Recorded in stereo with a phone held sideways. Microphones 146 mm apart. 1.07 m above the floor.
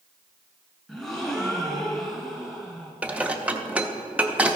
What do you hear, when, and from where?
0.9 s a gasp: 5° left (ahead or behind), 2.0 m
3.0 s dishes clattering: 10° right (ahead or behind), 0.7 m